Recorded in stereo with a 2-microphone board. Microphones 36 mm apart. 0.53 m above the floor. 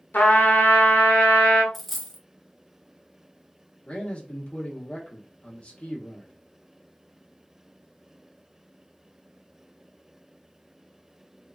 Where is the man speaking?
30° left (ahead or behind), 0.8 m.